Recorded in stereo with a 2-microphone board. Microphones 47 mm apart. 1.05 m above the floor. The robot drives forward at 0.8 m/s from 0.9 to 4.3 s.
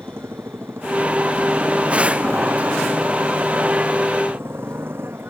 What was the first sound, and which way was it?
A motorcycle, 55° right (ahead or behind).